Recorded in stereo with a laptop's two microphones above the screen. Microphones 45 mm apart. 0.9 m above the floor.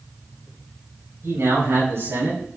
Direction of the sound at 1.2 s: 75° right (ahead or behind).